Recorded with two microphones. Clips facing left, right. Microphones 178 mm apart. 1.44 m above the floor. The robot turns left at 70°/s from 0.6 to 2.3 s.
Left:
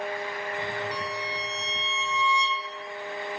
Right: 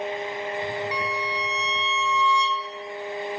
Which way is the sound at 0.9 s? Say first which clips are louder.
Right 4 dB; 120° left.